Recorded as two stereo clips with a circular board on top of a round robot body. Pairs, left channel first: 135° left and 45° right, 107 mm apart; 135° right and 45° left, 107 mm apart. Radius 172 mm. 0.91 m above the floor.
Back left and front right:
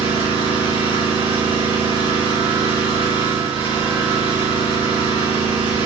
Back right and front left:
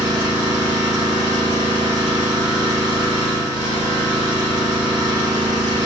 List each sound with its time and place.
0.0 s an engine running: 10° right, 1.5 m